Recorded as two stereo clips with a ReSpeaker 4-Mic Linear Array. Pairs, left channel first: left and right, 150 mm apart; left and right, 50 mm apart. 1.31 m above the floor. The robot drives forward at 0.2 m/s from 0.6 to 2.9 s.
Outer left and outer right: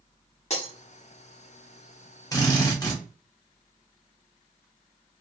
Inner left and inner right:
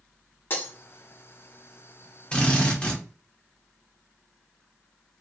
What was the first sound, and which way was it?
Breaking glass, 45° left (ahead or behind).